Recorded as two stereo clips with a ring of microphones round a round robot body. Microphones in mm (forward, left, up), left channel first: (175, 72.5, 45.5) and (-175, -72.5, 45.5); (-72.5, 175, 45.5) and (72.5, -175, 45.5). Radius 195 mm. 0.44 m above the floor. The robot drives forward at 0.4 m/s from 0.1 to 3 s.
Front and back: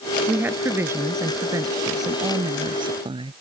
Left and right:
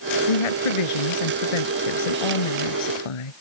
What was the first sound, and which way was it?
A woman speaking, 115° left.